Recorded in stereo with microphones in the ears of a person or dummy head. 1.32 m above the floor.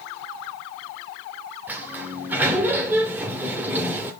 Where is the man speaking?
No man speaking in this recording.